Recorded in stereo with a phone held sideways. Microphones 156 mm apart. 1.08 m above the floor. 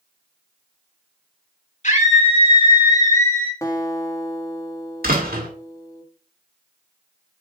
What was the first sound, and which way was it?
A scream, 50° left (ahead or behind).